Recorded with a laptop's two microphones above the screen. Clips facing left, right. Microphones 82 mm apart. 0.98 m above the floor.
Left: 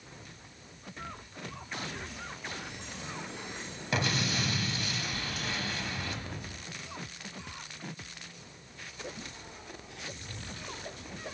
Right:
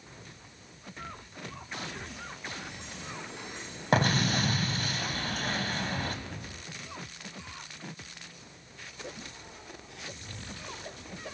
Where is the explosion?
50° right (ahead or behind), 1.1 m.